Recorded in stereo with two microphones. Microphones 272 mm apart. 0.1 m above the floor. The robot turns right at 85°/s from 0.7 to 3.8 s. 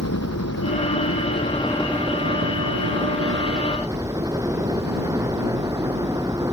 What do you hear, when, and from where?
0.0 s a helicopter: 85° left; by 6.5 s 15° right